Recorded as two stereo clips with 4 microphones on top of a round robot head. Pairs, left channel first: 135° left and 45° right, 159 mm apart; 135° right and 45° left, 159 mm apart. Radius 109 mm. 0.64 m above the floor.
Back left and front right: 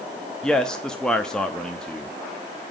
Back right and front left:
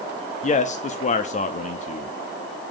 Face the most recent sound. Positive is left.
turn(degrees=-145)